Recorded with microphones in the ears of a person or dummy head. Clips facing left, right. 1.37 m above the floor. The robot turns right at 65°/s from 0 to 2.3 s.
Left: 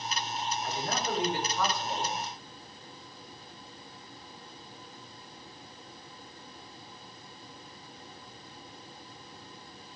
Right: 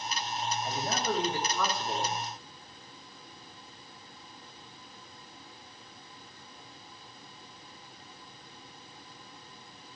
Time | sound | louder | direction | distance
0.6 | a man speaking | right 2 dB | 165° right | 3 m